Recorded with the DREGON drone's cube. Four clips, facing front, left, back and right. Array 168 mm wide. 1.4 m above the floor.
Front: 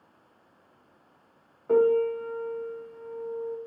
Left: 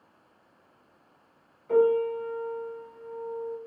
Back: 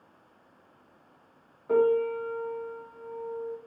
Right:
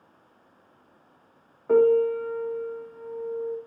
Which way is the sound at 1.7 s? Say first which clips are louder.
Right 4 dB, front 2 dB; 75° right.